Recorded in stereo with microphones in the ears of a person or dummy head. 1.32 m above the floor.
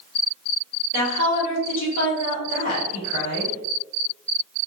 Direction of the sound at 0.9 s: 60° left (ahead or behind).